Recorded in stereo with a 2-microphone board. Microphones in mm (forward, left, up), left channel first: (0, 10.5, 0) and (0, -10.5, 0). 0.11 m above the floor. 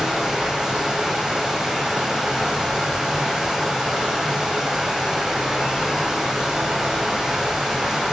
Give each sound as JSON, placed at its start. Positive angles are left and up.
{"t": 0.0, "sound": "running water", "side_deg": -35, "distance_m": 2.5}